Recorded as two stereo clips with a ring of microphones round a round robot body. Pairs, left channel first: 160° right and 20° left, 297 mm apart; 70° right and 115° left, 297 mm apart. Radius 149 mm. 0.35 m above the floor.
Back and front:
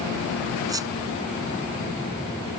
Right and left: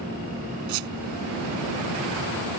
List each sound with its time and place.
0.7 s a squeak: 100° left